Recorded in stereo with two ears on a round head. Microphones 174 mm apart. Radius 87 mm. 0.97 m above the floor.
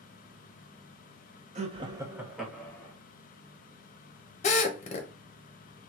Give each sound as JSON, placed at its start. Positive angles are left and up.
{"t": 1.6, "sound": "laughter", "side_deg": -35, "distance_m": 0.7}
{"t": 4.4, "sound": "a drill", "side_deg": 35, "distance_m": 0.6}